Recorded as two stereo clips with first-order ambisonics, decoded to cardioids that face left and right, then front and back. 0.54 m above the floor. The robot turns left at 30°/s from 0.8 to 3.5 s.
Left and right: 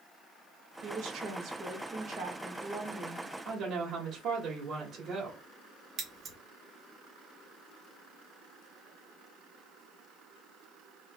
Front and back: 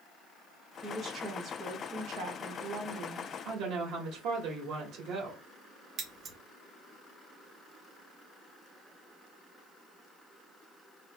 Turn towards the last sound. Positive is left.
turn(degrees=-140)